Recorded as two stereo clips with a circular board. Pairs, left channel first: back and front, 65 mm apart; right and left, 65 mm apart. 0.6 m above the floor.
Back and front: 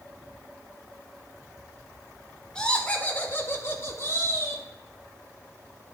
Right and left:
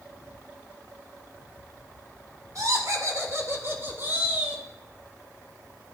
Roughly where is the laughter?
Left.